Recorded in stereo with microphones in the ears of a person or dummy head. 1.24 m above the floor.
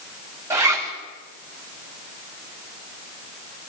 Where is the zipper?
15° right (ahead or behind), 3 m.